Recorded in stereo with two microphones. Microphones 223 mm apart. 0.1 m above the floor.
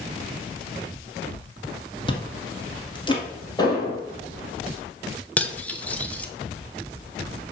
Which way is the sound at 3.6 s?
20° left (ahead or behind).